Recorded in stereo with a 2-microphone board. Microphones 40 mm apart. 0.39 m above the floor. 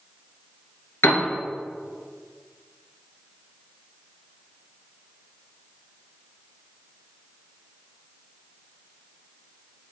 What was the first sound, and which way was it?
A piano, 75° left (ahead or behind).